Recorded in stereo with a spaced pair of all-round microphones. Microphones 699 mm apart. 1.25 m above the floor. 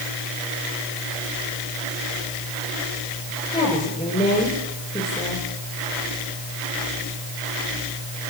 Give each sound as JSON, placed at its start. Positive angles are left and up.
{"t": 3.5, "sound": "a woman speaking", "side_deg": 10, "distance_m": 7.0}